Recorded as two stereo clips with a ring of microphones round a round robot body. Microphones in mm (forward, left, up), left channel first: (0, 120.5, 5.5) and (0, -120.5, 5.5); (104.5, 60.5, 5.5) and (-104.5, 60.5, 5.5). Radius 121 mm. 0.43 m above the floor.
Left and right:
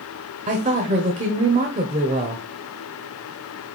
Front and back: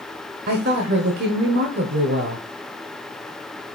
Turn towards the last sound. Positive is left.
turn(degrees=-145)